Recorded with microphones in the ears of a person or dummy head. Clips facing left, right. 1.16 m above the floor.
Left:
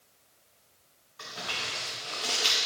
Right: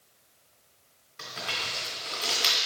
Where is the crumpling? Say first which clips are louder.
Right 1 dB; 30° right (ahead or behind), 2 m.